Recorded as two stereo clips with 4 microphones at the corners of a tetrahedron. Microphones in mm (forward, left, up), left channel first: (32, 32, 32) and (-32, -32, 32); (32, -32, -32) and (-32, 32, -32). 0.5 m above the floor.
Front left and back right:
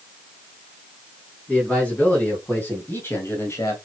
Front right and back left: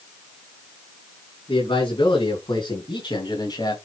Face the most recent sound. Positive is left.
turn(degrees=-10)